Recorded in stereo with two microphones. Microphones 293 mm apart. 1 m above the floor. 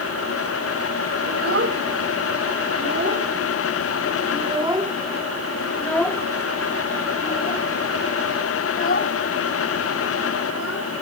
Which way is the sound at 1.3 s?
50° right (ahead or behind).